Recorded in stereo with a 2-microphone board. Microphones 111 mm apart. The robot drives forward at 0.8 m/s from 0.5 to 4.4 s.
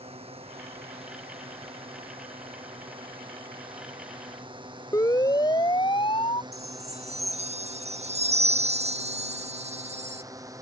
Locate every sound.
0.0 s a drone: 60° right (ahead or behind); by 10.6 s 30° right (ahead or behind)
4.9 s a siren: 30° left (ahead or behind); by 6.4 s 55° left (ahead or behind)
6.5 s a chime: 75° right (ahead or behind)